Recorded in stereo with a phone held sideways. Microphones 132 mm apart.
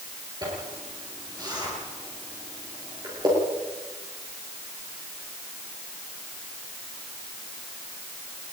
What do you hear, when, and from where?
0.4 s a zipper: 30° right (ahead or behind), 10 m